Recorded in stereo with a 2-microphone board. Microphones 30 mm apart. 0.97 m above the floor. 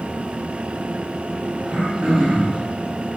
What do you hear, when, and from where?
1.6 s throat clearing: 30° right (ahead or behind), 1.4 m